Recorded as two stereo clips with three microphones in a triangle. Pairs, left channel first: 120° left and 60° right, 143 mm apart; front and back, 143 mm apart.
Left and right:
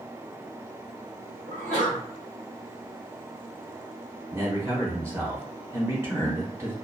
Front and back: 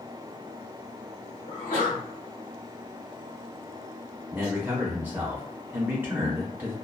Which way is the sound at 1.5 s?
25° right.